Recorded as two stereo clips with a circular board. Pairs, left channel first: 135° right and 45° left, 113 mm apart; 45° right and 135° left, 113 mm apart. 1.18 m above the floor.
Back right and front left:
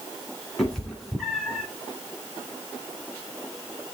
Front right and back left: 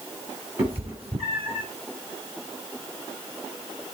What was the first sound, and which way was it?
A cat meowing, 140° left.